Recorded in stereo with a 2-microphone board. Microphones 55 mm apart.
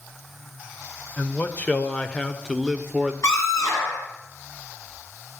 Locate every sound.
1.2 s a man speaking: 40° left (ahead or behind), 1.8 m; by 3.1 s 10° right (ahead or behind), 1.5 m
3.2 s a scream: 75° left (ahead or behind), 7.5 m